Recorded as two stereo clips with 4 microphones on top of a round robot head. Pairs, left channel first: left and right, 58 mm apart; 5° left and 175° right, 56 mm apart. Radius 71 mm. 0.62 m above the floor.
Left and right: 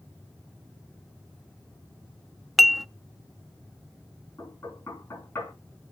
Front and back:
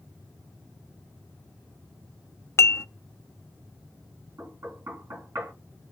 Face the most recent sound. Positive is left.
turn(degrees=145)